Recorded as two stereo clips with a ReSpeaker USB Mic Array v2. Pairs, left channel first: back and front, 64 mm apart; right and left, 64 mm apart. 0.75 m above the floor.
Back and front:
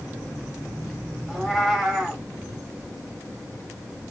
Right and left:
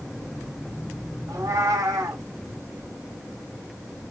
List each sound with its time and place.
1.3 s a cat meowing: 85° left, 1.4 m